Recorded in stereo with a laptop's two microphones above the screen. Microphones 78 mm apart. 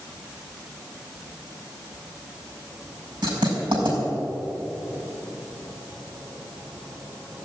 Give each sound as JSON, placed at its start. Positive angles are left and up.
{"t": 3.2, "sound": "writing", "side_deg": -80, "distance_m": 5.5}